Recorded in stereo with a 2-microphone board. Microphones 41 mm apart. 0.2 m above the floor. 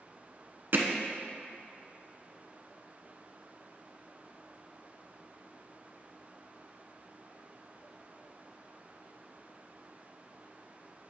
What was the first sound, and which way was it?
Hammering, 55° right (ahead or behind).